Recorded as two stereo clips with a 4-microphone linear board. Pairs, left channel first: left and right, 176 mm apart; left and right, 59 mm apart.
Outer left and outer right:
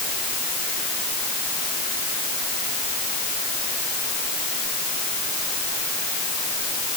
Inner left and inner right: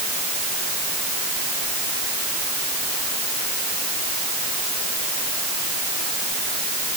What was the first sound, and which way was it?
Only background noise.